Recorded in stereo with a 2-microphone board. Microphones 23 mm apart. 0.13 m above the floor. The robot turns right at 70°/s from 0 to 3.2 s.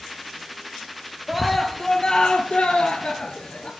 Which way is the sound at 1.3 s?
10° right.